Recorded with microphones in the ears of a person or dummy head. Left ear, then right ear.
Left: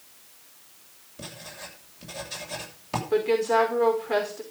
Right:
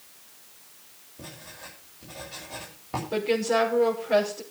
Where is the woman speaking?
30° left (ahead or behind), 5 m.